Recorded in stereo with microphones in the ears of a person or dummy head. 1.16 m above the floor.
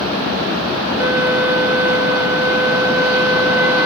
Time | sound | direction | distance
1.0 | a violin | 15° right (ahead or behind) | ?